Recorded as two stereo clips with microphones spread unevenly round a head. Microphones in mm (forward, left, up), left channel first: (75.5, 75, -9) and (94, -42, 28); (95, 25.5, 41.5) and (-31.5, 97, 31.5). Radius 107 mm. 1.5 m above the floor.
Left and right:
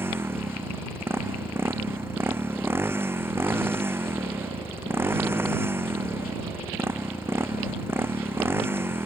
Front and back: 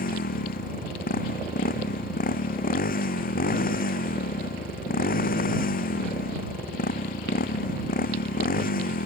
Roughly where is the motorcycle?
Ahead.